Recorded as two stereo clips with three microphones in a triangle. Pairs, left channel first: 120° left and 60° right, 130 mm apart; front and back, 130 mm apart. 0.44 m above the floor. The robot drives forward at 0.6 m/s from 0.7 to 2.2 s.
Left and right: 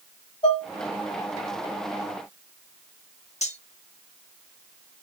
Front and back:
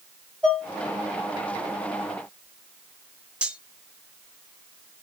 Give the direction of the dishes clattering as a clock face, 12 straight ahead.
9 o'clock.